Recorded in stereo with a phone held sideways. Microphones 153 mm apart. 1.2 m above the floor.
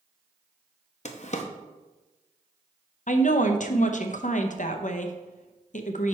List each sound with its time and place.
1.1 s a drawer: 50° left (ahead or behind), 0.6 m
3.1 s a woman speaking: 55° left (ahead or behind), 0.6 m